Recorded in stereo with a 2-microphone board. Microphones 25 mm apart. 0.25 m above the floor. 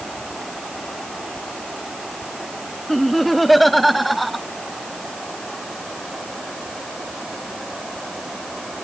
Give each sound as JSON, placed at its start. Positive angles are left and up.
{"t": 2.9, "sound": "laughter", "side_deg": 5}